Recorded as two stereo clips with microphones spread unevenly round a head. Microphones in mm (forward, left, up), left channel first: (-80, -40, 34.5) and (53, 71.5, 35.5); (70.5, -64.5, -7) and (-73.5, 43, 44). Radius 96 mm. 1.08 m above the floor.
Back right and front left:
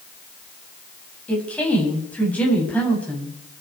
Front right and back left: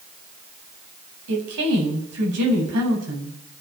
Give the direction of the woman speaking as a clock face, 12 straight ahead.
7 o'clock.